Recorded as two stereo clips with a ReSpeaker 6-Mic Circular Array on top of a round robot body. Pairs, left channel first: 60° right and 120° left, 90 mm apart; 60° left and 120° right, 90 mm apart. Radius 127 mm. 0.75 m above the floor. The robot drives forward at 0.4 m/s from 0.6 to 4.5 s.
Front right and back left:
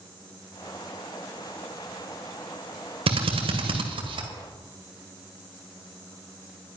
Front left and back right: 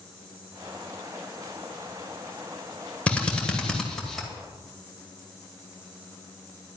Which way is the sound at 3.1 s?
140° left.